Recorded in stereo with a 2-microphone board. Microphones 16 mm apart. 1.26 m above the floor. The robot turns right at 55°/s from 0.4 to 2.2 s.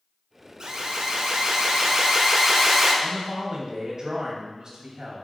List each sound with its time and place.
0.6 s an alarm: 125° right, 1.8 m; by 2.9 s 35° right, 1.8 m
3.0 s a man speaking: 50° right (ahead or behind), 2.5 m